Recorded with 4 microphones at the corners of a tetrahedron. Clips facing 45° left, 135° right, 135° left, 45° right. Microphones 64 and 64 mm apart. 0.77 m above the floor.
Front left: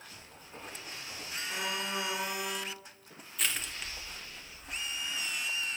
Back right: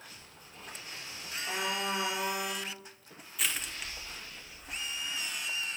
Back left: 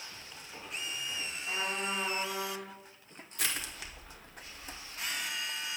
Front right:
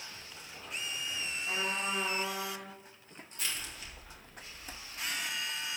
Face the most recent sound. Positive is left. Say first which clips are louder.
# even, back left 3 dB
turn(degrees=140)